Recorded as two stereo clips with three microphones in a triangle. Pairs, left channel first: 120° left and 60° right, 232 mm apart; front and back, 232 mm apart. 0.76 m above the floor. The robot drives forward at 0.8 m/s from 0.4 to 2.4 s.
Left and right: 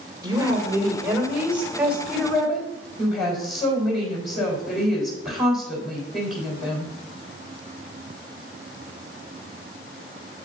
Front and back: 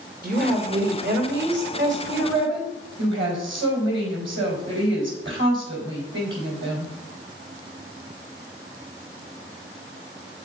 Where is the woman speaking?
130° right, 2.5 m; by 6.9 s 150° right, 4 m.